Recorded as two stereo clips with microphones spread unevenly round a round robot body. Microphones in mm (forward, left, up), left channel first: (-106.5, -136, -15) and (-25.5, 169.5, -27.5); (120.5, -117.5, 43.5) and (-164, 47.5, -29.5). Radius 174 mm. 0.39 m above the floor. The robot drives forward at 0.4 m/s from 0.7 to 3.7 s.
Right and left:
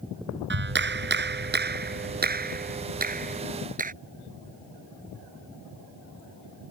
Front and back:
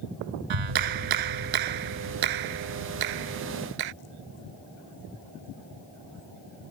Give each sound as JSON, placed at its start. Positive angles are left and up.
{"t": 0.5, "sound": "a clap", "azimuth_deg": 130}